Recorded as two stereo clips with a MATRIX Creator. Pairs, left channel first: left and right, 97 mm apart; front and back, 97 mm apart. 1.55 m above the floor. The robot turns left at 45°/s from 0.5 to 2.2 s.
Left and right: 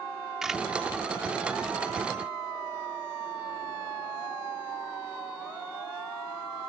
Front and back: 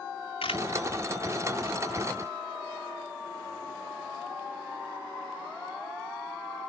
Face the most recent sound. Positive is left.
turn(degrees=-80)